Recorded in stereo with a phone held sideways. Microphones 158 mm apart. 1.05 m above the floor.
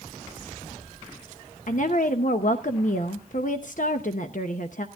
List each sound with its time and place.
1.7 s a woman speaking: 60° left (ahead or behind), 0.8 m